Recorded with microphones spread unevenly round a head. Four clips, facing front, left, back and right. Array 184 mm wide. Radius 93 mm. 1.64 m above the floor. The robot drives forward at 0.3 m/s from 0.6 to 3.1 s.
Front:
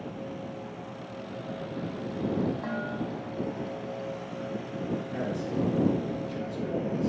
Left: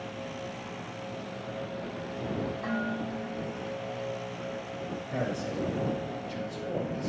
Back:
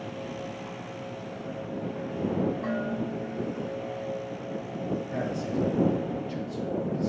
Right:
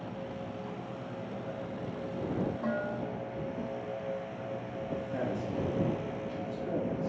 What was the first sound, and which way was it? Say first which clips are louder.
Dishes clattering: left 1 dB, back 3 dB; 130° right.